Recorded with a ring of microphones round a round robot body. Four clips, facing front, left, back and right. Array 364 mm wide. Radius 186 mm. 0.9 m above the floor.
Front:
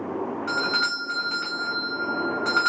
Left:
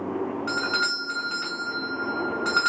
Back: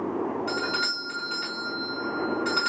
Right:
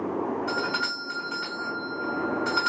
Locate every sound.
0.5 s a doorbell: 70° left, 2.5 m